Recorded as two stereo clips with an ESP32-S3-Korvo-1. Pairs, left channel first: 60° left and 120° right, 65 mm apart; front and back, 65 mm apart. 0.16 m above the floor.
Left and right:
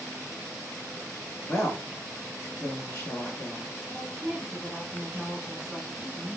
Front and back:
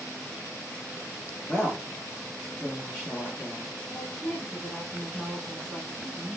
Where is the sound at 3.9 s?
40° right, 1.0 m.